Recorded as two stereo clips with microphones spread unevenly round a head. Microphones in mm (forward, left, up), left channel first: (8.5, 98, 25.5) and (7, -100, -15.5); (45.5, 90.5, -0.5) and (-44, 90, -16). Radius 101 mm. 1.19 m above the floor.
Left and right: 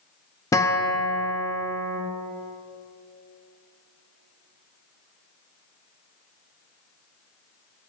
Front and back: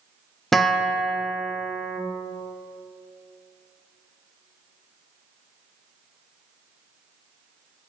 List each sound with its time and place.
0.5 s a guitar: 70° left, 0.6 m